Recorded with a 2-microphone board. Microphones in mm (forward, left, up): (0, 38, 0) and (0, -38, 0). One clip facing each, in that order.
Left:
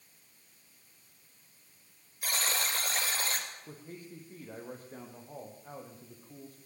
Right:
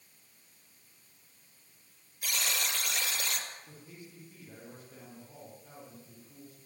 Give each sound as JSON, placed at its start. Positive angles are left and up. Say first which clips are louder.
{"t": 2.2, "sound": "a buzzer", "louder": "left 1 dB", "side_deg": 35, "distance_m": 3.0}
{"t": 3.7, "sound": "a man speaking", "louder": "left 4 dB", "side_deg": 40, "distance_m": 4.5}